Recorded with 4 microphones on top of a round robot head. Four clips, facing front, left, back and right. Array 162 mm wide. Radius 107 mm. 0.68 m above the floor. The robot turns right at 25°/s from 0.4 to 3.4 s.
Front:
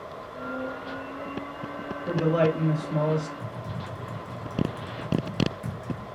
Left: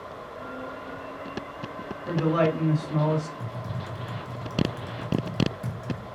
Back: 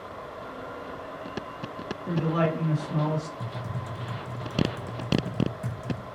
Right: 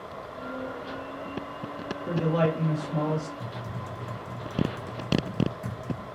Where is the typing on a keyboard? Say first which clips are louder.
Left 1 dB, even; 145° left, 0.8 m.